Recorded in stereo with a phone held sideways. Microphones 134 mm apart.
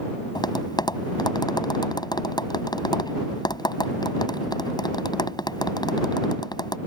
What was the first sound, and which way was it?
Tapping, 35° left (ahead or behind).